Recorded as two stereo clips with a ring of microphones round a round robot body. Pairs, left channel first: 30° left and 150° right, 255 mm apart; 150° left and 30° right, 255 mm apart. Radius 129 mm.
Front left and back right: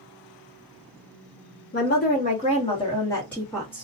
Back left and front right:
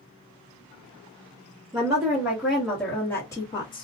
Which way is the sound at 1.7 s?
40° left.